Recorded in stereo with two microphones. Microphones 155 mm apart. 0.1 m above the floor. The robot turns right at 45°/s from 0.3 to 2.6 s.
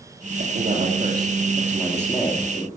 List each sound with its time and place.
0.4 s a man speaking: 65° right, 2.5 m; by 2.7 s 35° left, 2.5 m